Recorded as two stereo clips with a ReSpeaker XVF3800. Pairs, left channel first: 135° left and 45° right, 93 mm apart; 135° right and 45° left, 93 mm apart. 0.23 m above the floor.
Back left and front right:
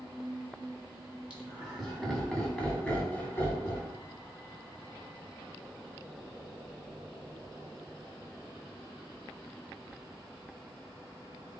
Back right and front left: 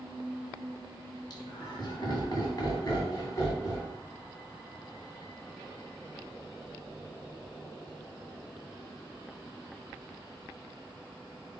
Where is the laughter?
120° right, 1.9 m; by 3.9 s straight behind, 1.8 m.